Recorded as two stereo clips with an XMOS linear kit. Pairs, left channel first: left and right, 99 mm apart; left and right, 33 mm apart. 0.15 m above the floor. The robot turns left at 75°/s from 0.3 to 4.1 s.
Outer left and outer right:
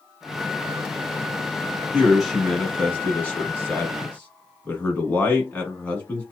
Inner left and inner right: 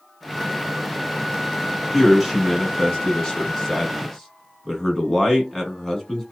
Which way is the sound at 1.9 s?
10° right (ahead or behind).